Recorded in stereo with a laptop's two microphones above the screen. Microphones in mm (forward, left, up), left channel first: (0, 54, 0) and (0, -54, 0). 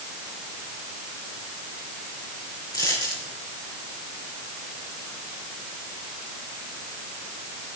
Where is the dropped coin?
40° left (ahead or behind), 6 m.